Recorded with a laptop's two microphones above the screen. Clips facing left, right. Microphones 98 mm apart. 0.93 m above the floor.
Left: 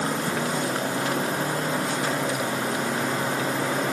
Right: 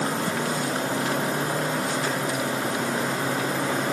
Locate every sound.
Only background noise.